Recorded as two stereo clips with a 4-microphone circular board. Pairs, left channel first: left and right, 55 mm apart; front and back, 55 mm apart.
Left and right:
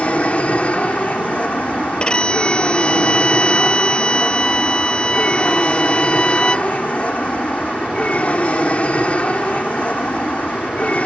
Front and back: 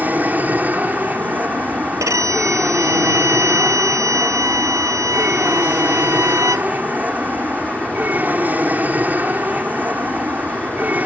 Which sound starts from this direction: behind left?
An aircraft, at 0.0 s.